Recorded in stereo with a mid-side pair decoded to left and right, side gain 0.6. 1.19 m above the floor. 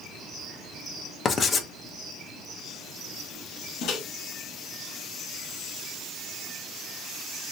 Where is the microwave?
65° left, 1.3 m.